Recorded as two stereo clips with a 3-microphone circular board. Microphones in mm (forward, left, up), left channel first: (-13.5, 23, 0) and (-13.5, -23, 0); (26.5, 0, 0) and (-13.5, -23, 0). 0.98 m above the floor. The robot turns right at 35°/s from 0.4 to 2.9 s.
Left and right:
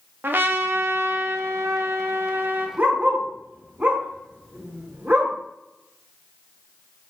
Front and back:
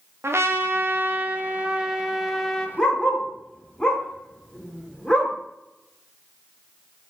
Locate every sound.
0.2 s a trumpet: 125° right, 0.5 m; by 2.7 s 50° right, 0.5 m
2.8 s a dog barking: 45° right, 1.2 m; by 5.3 s 40° right, 1.2 m